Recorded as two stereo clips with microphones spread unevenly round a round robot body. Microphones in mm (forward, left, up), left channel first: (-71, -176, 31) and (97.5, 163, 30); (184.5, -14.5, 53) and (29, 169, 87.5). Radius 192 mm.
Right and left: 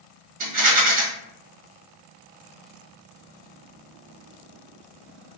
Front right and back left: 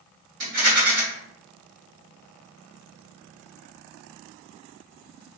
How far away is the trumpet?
I don't hear a trumpet.